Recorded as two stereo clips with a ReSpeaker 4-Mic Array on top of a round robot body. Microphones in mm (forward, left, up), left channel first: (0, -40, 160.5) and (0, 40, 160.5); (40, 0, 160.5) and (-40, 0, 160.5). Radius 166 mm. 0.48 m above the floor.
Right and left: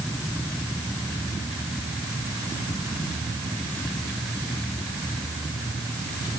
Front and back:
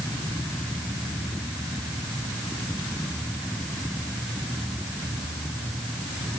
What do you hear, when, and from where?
Only background noise.